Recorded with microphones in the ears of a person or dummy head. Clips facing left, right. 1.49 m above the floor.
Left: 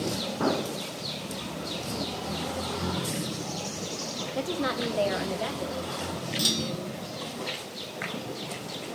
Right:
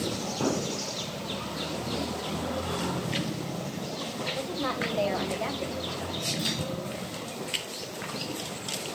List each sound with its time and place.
4.3 s a woman speaking: 40° left (ahead or behind), 0.9 m; by 6.3 s 5° right (ahead or behind), 2.5 m
6.4 s a clunk: 40° left (ahead or behind), 0.6 m